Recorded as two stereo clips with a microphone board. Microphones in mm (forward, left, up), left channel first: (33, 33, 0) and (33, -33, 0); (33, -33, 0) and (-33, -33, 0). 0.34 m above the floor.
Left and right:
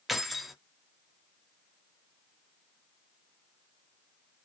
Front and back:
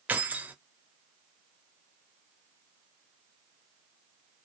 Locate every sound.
0.1 s keys jangling: 175° right, 0.6 m